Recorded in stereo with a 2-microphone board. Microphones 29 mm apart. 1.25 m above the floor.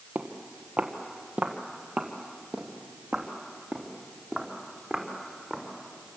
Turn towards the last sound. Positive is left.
turn(degrees=0)  # may be behind; listen again after turning